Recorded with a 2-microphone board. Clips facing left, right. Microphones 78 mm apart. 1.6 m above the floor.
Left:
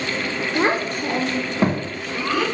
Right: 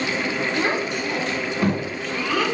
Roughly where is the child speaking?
Left.